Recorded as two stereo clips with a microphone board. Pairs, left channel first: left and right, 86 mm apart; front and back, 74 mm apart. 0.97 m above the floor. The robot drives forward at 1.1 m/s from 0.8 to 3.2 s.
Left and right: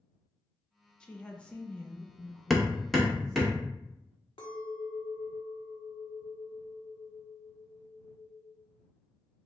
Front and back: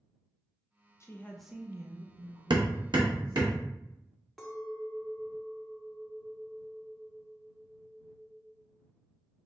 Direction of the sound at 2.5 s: Straight behind.